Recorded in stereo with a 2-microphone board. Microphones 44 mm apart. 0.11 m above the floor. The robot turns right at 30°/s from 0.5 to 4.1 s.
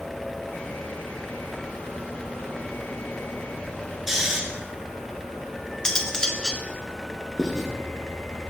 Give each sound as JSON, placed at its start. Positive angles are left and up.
{"t": 4.1, "sound": "snoring", "side_deg": -10, "distance_m": 1.3}
{"t": 5.8, "sound": "cutlery clinking", "side_deg": 15, "distance_m": 0.7}
{"t": 7.4, "sound": "writing", "side_deg": -10, "distance_m": 1.5}